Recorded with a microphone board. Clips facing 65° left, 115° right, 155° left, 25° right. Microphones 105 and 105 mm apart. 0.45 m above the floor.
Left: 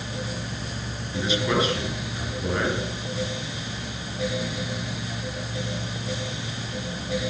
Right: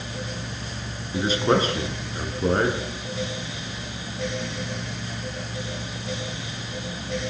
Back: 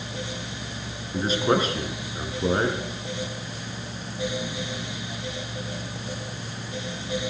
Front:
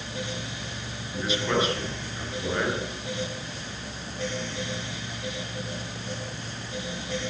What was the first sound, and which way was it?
A man speaking, 155° right.